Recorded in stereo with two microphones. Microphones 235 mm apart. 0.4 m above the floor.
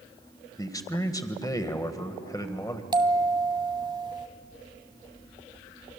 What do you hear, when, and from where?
0.6 s a man speaking: 15° left (ahead or behind), 1.5 m
2.9 s a bell: 20° right (ahead or behind), 0.7 m